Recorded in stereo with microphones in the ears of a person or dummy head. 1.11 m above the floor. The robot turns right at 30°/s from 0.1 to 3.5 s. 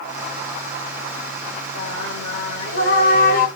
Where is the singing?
85° left, 1.3 m; by 3.5 s 135° left, 1.3 m.